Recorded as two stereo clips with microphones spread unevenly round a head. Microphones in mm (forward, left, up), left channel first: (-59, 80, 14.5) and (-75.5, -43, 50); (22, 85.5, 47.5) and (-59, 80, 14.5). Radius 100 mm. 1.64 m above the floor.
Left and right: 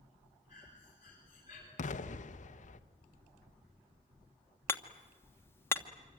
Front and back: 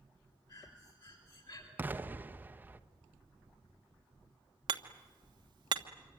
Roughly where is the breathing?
Ahead left.